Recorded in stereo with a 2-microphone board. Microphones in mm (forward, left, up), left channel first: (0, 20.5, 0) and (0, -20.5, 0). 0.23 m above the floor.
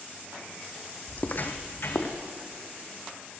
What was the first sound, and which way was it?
Footsteps, 35° left (ahead or behind).